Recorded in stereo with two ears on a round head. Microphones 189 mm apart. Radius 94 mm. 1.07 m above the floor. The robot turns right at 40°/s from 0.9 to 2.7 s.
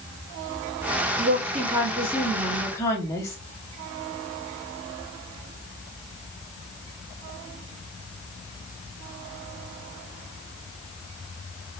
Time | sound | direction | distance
1.2 | a woman speaking | 45° right | 1.5 m